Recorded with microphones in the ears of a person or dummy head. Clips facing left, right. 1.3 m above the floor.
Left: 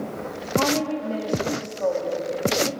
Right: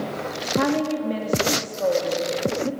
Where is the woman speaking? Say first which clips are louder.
Right 1 dB; 20° right (ahead or behind), 3 m.